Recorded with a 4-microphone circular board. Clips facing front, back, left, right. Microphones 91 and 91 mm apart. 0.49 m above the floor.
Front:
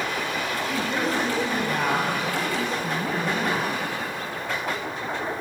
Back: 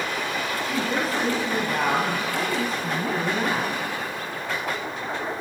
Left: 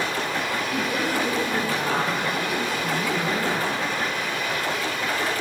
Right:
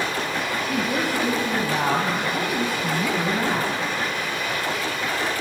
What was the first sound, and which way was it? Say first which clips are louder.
A woman speaking: back 1 dB, right 2 dB; 95° right.